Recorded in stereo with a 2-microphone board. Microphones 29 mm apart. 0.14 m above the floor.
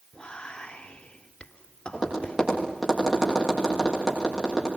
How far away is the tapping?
About 9 m.